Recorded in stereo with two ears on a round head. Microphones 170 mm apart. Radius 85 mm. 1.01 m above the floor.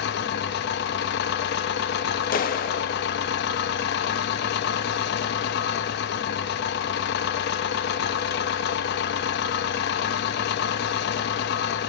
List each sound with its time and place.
0.0 s an engine running: 60° left (ahead or behind), 0.9 m
2.3 s a clap: 45° left (ahead or behind), 1.0 m